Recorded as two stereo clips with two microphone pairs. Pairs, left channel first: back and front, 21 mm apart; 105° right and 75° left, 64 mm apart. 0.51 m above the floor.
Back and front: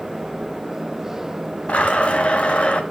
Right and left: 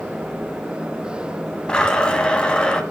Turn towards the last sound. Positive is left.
turn(degrees=180)